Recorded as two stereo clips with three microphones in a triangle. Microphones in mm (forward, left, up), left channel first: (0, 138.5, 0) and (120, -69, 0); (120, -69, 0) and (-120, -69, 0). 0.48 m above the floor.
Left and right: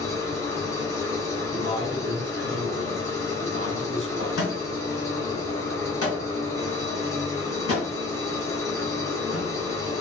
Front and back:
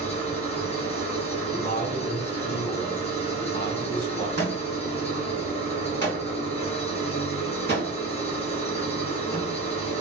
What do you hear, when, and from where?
0.0 s an engine running: 50° left, 0.9 m
1.5 s a man speaking: 55° right, 0.8 m
4.4 s a thud: 140° left, 1.8 m